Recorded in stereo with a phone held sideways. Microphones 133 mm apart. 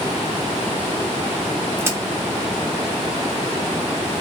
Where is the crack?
20° right (ahead or behind), 0.6 m.